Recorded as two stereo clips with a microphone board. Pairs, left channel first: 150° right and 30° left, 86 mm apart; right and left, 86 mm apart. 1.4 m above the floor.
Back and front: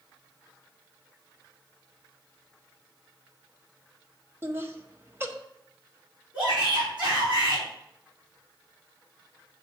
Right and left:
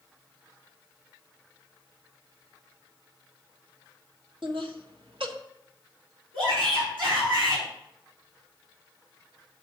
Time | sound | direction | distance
4.4 | laughter | 90° left | 1.4 m
6.3 | a shout | 105° left | 4.5 m